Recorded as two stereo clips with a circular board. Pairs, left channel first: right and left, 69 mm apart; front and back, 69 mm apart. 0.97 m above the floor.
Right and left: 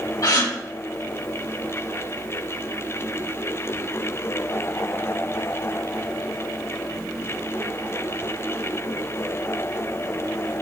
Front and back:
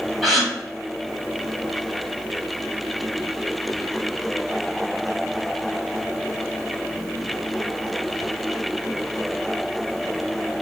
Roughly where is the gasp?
Right.